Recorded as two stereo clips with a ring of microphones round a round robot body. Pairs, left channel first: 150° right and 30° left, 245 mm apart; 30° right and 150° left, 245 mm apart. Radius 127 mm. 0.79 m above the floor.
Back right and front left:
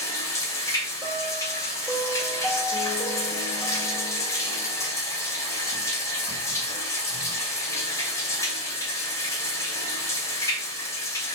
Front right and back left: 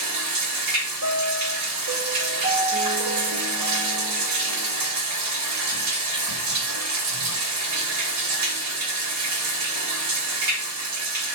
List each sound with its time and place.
0.0 s running water: 130° left, 2.5 m
1.0 s a piano: 115° left, 1.7 m